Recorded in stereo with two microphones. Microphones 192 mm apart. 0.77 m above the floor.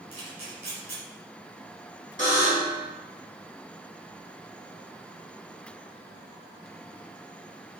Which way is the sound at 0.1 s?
55° right (ahead or behind).